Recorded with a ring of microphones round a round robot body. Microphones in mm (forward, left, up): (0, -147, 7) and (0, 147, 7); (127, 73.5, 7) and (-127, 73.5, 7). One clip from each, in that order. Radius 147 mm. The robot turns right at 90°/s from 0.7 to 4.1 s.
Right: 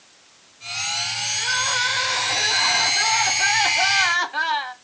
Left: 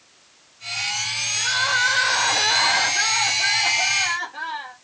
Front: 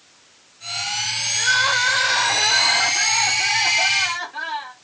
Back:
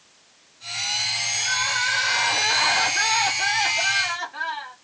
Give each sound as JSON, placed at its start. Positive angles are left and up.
{"t": 1.4, "sound": "crying", "azimuth_deg": 10, "distance_m": 1.0}